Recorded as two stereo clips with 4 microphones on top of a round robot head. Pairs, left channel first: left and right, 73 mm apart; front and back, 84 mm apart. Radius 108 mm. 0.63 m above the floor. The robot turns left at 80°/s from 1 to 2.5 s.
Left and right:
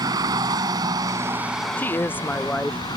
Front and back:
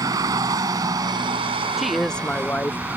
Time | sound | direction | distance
0.0 | a vehicle | 130° right | ?
1.8 | a woman speaking | 100° left | ?